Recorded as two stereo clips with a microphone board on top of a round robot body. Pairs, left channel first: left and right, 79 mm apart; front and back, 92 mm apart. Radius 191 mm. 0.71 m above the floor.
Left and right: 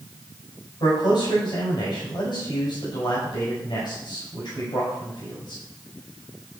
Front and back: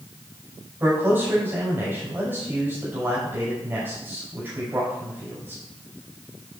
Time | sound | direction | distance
0.8 | a man speaking | 110° left | 5.5 m